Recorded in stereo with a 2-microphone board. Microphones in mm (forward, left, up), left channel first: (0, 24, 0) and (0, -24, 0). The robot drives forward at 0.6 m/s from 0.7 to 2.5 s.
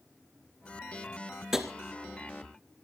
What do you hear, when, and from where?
1.5 s tapping: 10° right (ahead or behind), 2.5 m